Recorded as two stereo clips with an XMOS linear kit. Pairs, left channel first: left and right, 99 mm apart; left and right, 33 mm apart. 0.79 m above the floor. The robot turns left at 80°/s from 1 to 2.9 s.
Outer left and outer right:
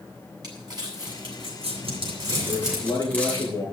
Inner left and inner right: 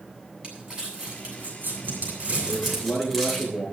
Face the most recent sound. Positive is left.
turn(degrees=140)